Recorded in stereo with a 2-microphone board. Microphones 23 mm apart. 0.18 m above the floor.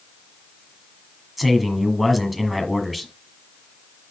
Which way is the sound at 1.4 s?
Centre (ahead or behind).